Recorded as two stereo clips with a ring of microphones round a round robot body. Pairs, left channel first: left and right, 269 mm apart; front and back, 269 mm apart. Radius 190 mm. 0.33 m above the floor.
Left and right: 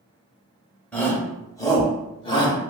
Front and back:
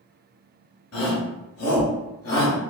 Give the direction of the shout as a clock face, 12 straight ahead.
12 o'clock.